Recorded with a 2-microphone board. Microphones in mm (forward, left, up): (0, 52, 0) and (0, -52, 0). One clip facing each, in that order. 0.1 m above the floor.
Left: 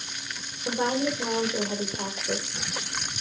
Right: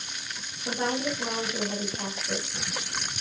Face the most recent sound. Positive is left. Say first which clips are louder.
# left 3 dB
turn(degrees=25)  # may be behind; listen again after turning